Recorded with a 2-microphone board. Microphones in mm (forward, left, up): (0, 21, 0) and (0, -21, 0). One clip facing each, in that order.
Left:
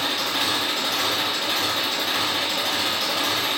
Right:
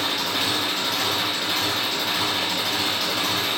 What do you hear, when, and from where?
0.0 s an engine running: centre (ahead or behind), 1.8 m